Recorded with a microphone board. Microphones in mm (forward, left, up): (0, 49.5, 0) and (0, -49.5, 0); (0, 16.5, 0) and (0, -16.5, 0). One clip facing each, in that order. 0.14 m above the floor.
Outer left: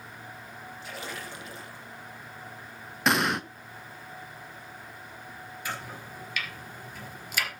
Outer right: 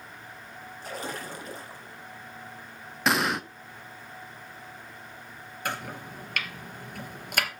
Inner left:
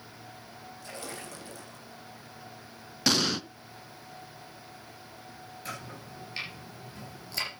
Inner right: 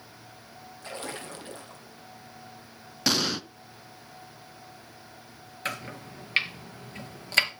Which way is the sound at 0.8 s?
40° right (ahead or behind).